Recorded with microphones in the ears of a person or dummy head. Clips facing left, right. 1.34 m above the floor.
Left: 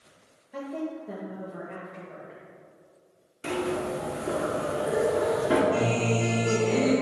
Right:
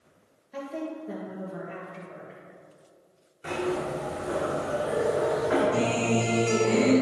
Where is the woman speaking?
5° right (ahead or behind), 1.7 m.